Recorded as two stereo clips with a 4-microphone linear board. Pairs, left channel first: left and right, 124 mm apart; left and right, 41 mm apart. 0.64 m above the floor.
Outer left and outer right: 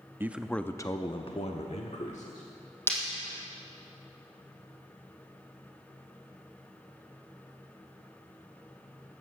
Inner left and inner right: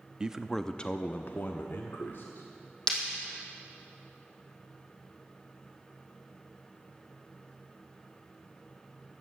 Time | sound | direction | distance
0.2 | a man speaking | 20° right (ahead or behind) | 0.6 m
2.9 | breaking glass | 20° left (ahead or behind) | 3 m